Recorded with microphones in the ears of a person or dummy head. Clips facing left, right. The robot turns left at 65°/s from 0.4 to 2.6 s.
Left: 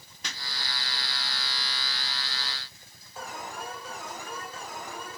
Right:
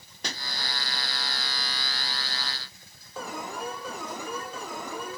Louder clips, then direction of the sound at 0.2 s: Right 6 dB; 35° right (ahead or behind).